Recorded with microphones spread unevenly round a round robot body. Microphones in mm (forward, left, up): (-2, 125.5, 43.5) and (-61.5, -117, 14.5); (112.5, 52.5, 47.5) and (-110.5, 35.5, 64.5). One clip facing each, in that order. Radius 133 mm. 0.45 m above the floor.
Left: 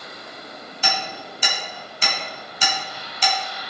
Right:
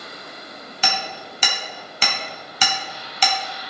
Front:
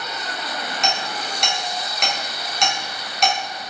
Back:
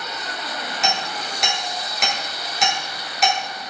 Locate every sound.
0.8 s hammering: 85° right, 2.5 m